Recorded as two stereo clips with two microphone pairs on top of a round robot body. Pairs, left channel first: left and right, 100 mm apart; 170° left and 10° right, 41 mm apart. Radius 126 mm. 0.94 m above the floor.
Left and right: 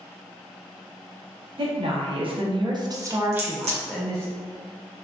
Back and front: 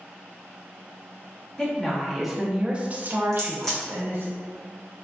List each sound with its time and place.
1.6 s a woman speaking: 110° right, 1.1 m; by 4.3 s 10° left, 1.2 m
3.3 s a crack: 105° right, 0.7 m